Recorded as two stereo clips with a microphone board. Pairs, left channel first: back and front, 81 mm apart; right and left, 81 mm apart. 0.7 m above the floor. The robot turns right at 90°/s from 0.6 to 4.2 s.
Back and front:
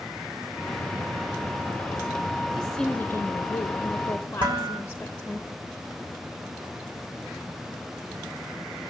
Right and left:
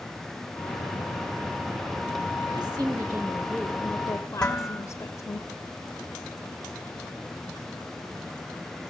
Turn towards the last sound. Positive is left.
turn(degrees=-10)